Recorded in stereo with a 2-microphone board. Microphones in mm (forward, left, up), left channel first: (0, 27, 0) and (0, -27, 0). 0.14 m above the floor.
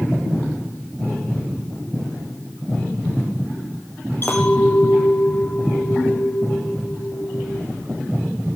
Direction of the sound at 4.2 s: 40° left (ahead or behind).